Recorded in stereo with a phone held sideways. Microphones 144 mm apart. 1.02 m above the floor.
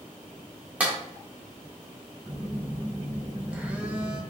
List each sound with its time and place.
0.8 s a clap: 10° right (ahead or behind), 1.8 m
2.3 s a phone buzzing: 10° right (ahead or behind), 0.8 m